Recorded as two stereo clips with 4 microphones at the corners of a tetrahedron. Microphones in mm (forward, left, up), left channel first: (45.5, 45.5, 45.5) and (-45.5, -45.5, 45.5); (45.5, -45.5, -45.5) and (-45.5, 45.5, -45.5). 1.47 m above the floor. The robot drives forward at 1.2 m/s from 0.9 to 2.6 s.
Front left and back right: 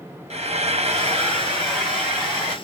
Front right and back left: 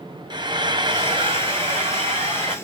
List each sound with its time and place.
0.3 s frying: 170° right, 0.9 m; by 2.5 s 175° right, 3 m